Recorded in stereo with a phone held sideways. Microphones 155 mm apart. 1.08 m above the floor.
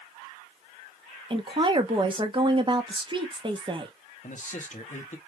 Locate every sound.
1.3 s a woman speaking: 30° right (ahead or behind), 1.0 m
4.2 s a man speaking: 55° left (ahead or behind), 1.1 m